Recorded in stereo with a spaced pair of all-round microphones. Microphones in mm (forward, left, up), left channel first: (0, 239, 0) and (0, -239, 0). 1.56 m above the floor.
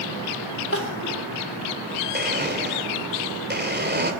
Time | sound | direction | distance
0.7 | crying | 30° left (ahead or behind) | 3.5 m
2.1 | a blender | 20° right (ahead or behind) | 2.5 m